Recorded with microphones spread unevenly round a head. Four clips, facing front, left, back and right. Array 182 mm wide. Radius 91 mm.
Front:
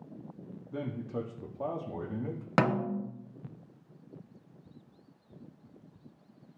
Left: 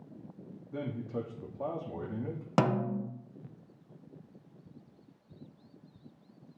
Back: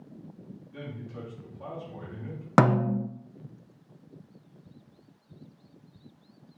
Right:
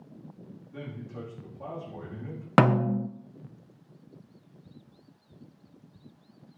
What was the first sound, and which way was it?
A man speaking, 40° left.